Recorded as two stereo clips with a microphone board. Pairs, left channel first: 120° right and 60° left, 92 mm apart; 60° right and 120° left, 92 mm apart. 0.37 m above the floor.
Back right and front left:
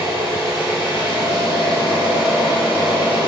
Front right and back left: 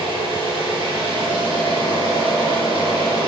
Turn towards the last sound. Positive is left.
turn(degrees=120)